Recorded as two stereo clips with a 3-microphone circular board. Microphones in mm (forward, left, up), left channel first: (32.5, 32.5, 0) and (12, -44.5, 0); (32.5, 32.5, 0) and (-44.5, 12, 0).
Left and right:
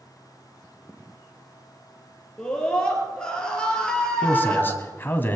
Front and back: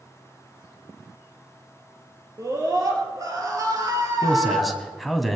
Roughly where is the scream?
Behind left.